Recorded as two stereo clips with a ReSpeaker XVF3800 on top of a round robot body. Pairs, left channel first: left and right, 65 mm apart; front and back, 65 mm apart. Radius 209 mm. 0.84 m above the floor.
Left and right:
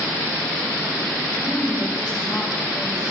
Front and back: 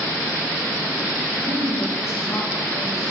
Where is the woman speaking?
15° left, 4.5 m.